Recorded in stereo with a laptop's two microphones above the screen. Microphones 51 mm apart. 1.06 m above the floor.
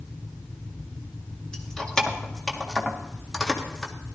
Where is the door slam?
I don't hear a door slam.